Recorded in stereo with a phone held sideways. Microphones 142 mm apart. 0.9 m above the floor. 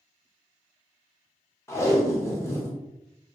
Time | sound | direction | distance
1.7 | tape being pulled | 20° left (ahead or behind) | 0.7 m